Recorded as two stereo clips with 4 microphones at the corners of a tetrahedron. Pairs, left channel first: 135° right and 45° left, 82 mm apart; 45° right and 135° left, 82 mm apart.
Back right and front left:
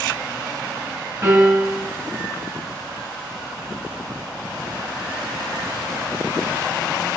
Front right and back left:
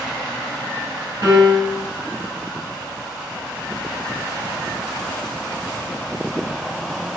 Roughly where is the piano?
Left.